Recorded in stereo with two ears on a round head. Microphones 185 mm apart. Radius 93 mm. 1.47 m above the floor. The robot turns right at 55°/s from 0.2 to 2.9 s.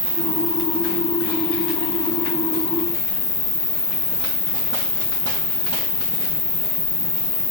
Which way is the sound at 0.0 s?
15° right.